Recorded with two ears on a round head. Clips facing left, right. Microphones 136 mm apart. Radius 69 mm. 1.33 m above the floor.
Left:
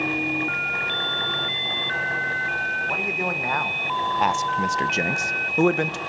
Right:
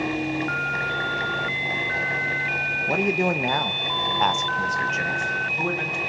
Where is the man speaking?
40° right (ahead or behind), 1.1 m; by 6.0 s 65° left (ahead or behind), 1.1 m.